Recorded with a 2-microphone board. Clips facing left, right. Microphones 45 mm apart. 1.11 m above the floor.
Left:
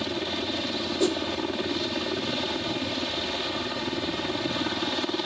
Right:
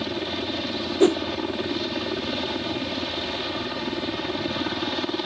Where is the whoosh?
35° right (ahead or behind).